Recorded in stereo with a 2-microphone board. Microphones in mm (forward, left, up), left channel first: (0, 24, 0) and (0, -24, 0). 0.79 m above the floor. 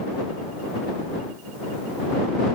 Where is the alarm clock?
I don't hear an alarm clock.